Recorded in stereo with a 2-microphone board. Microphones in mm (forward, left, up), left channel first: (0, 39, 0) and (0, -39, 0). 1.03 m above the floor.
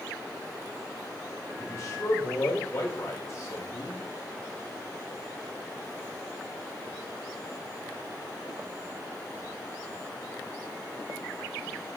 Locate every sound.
1.6 s a man speaking: 40° left (ahead or behind), 3.5 m